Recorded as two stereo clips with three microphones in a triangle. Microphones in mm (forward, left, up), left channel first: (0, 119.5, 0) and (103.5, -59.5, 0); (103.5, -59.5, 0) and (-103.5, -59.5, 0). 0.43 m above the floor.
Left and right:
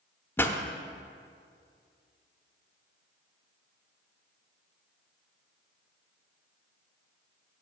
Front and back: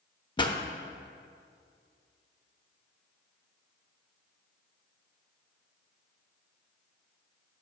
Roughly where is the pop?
Ahead left.